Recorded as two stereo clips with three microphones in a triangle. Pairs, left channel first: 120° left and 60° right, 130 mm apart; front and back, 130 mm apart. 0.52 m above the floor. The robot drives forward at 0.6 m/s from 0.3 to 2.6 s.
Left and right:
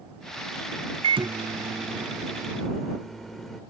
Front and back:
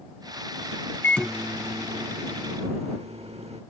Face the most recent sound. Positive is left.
turn(degrees=-155)